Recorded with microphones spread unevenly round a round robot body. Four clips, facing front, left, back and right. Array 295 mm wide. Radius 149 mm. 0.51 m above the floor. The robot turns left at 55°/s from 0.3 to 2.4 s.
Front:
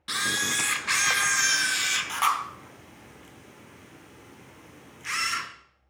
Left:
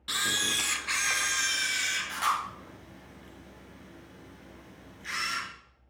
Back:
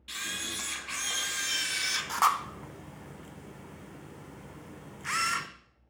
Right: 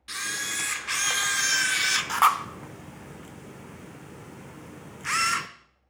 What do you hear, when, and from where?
0.1 s a camera shutter: 20° left, 0.6 m; by 5.5 s 95° right, 0.6 m